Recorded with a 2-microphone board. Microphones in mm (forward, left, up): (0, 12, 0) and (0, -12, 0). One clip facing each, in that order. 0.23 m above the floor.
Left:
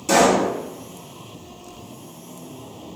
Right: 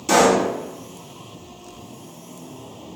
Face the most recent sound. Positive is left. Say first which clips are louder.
# even
turn(degrees=-10)  # may be behind; listen again after turning